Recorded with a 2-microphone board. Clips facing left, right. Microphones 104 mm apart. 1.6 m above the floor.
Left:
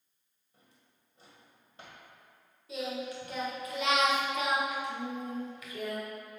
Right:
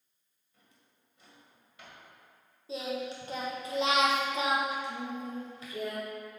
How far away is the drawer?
About 1.6 m.